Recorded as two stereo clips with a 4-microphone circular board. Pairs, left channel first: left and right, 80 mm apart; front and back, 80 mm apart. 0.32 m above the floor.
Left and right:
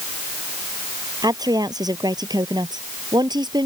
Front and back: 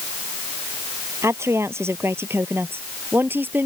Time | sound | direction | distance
1.2 | a woman speaking | 125° right | ?